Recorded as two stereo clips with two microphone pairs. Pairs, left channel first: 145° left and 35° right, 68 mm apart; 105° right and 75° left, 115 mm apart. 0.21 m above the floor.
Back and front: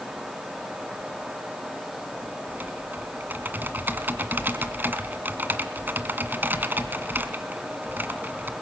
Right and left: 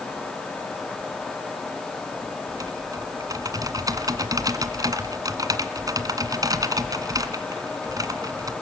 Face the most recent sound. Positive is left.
turn(degrees=25)